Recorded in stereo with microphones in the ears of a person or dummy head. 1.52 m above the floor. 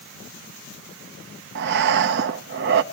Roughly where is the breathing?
Right.